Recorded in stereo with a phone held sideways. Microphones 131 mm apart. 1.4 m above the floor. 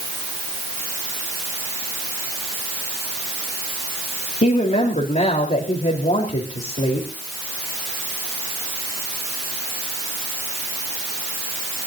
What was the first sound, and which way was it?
A woman speaking, 60° left (ahead or behind).